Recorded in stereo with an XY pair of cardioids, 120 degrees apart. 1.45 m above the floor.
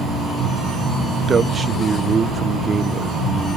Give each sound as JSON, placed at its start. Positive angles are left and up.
{"t": 1.3, "sound": "a man speaking", "azimuth_deg": -25, "distance_m": 0.7}